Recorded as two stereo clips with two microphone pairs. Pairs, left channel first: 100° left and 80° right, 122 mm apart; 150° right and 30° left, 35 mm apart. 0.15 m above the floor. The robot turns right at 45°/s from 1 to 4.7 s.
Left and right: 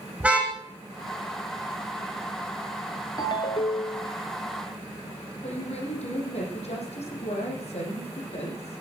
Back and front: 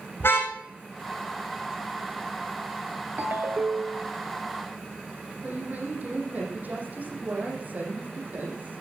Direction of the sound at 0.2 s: 160° right.